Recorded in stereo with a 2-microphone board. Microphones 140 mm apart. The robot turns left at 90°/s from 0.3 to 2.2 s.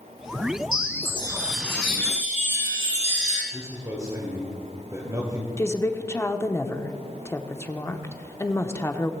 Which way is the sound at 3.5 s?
25° right (ahead or behind).